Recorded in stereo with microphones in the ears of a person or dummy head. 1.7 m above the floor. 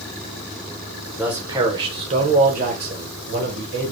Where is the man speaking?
5° right (ahead or behind), 1.0 m; by 3.9 s 65° right (ahead or behind), 1.6 m.